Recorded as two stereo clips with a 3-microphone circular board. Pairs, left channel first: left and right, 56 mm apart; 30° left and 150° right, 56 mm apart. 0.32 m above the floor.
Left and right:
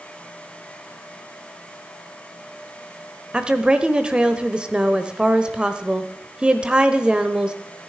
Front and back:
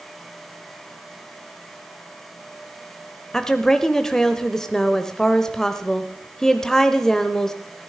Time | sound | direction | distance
3.3 | a woman speaking | 40° right | 0.9 m